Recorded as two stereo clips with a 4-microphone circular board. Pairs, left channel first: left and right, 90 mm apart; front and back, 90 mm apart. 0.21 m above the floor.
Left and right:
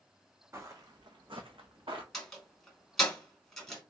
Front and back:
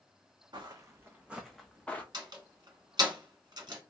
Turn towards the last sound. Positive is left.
turn(degrees=175)